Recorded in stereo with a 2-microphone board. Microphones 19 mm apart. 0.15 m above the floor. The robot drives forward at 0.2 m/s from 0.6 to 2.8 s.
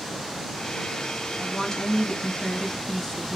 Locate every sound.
1.4 s a woman speaking: 45° left (ahead or behind), 1.8 m